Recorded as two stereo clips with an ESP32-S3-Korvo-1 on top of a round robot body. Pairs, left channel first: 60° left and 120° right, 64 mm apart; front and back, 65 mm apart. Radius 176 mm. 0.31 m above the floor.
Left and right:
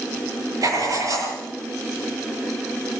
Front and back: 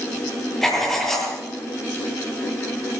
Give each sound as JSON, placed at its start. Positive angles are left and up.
{"t": 0.6, "sound": "writing", "azimuth_deg": -85, "distance_m": 9.5}